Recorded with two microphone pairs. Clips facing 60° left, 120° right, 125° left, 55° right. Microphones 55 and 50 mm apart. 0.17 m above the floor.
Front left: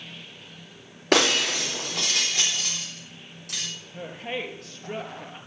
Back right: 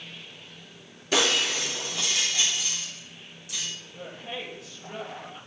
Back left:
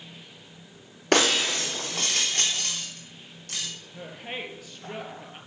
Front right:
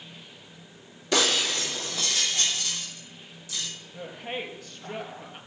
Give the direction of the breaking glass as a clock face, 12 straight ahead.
9 o'clock.